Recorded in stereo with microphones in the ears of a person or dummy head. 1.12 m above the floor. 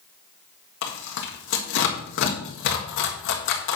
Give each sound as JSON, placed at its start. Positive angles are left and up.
{"t": 0.8, "sound": "tearing paper", "side_deg": 60, "distance_m": 1.8}